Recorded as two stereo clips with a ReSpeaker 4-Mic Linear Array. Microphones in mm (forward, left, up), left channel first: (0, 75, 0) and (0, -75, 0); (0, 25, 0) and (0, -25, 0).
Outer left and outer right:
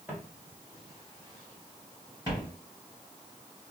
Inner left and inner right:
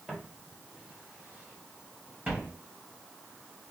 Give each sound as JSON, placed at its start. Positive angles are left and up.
{"t": 0.1, "sound": "footsteps", "side_deg": -10, "distance_m": 1.6}